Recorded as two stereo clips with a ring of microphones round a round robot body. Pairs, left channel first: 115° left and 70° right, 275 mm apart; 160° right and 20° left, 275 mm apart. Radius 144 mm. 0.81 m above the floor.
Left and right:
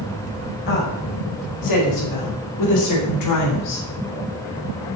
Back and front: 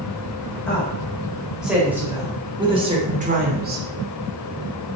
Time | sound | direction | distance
0.7 | a woman speaking | 120° left | 5.5 m